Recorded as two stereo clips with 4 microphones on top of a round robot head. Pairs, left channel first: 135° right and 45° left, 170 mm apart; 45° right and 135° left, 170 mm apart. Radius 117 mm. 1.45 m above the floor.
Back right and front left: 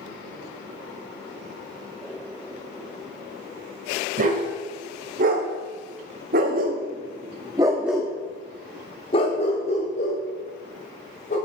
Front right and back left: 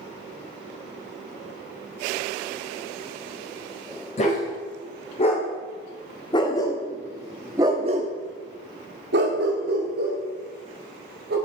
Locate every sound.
4.2 s a dog barking: 5° left, 3 m; by 11.4 s 175° left, 3.5 m